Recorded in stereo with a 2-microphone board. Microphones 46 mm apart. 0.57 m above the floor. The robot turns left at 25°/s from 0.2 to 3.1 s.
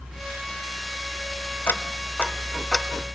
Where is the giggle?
No giggle in this recording.